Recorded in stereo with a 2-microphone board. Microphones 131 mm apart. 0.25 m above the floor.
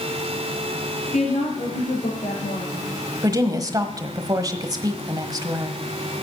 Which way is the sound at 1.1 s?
70° left (ahead or behind).